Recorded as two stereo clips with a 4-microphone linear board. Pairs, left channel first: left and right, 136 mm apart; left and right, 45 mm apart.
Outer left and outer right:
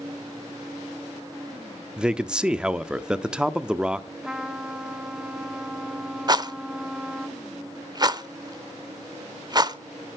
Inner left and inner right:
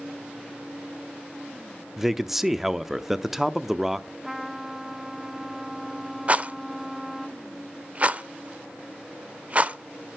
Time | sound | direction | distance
2.0 | a man speaking | 5° right (ahead or behind) | 0.7 m
4.2 | a trumpet | 5° right (ahead or behind) | 1.2 m
6.3 | a rattle | 35° right (ahead or behind) | 0.8 m